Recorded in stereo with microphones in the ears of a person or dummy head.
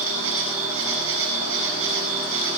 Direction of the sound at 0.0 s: 85° right.